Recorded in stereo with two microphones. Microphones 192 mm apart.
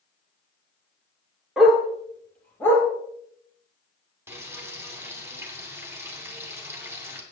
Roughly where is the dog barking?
Centre.